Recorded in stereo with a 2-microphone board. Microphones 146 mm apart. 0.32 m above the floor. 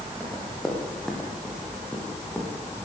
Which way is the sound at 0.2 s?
Centre (ahead or behind).